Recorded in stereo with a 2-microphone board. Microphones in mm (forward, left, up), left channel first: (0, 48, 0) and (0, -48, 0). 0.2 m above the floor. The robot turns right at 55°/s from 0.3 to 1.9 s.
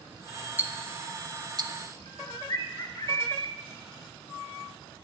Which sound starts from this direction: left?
A bird, at 2.1 s.